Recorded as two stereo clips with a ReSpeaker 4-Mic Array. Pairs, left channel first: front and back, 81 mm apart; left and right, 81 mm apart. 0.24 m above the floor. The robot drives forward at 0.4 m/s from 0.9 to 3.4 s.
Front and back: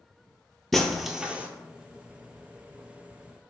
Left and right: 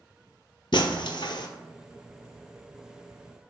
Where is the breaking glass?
85° left, 0.5 m; by 1.5 s 110° left, 0.6 m.